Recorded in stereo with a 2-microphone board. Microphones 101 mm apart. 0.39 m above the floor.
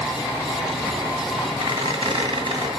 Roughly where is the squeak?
Right.